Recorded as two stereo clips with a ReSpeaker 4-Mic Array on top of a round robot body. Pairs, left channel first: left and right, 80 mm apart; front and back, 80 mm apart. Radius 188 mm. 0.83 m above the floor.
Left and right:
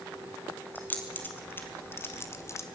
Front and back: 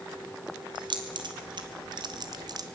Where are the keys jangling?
160° left, 2.5 m; by 2.6 s 145° left, 1.1 m.